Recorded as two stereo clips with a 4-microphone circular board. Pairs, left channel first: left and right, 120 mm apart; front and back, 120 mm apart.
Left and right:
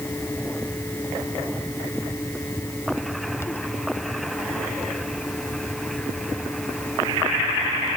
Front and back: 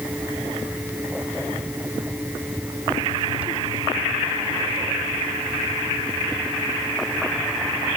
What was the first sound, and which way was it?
Only background noise.